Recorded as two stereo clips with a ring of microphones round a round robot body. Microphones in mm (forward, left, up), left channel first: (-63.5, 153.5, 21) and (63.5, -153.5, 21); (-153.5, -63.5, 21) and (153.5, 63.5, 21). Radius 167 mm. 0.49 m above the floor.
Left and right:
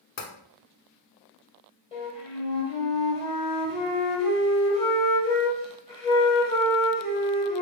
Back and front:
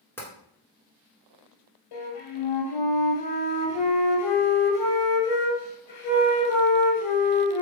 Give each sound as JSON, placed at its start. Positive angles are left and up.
{"t": 0.2, "sound": "tapping", "azimuth_deg": 120, "distance_m": 0.9}
{"t": 1.9, "sound": "a flute", "azimuth_deg": -170, "distance_m": 2.0}